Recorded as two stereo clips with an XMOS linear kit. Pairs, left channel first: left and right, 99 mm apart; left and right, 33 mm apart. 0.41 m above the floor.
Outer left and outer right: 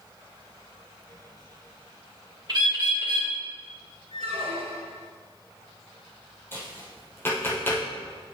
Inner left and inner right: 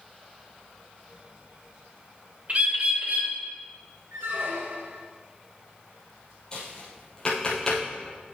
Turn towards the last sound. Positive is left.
turn(degrees=20)  # may be behind; listen again after turning